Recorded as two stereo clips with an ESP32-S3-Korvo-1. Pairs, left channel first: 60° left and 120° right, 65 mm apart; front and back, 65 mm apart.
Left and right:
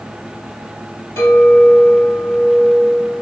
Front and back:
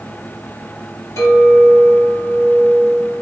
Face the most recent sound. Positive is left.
turn(degrees=15)